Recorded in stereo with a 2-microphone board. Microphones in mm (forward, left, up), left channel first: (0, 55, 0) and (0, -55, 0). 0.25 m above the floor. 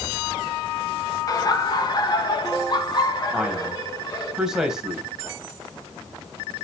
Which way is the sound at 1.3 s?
35° left (ahead or behind).